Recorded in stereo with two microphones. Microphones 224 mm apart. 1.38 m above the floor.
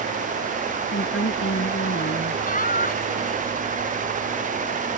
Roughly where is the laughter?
Left.